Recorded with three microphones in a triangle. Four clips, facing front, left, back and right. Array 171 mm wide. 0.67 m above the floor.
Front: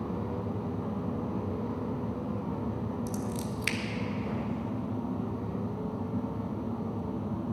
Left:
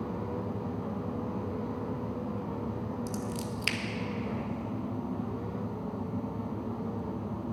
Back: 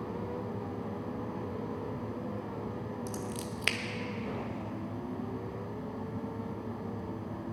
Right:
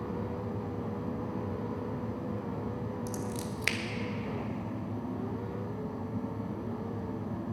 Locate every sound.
3.1 s scissors: 160° right, 0.8 m